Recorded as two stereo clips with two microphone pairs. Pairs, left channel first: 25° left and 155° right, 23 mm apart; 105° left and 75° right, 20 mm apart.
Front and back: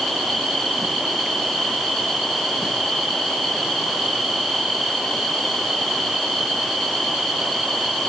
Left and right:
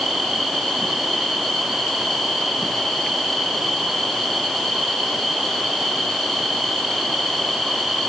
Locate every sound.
Only background noise.